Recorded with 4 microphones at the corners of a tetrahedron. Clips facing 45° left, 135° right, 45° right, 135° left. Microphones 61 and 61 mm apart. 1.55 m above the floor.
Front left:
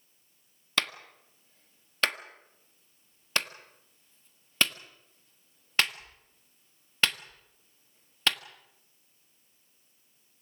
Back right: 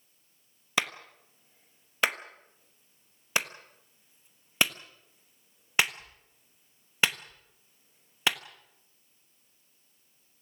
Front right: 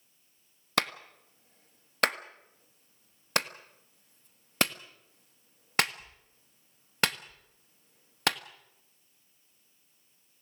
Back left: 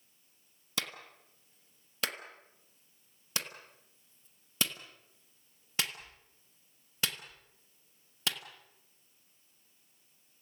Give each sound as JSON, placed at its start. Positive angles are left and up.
{"t": 0.8, "sound": "a clap", "azimuth_deg": -60, "distance_m": 1.2}